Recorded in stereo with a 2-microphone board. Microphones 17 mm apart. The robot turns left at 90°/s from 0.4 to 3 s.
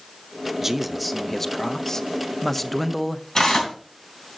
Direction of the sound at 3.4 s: 50° left (ahead or behind).